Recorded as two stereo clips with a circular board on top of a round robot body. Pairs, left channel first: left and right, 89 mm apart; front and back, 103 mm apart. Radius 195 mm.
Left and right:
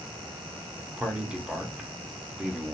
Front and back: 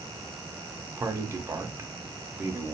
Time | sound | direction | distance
1.0 | a man speaking | 160° right | 0.8 m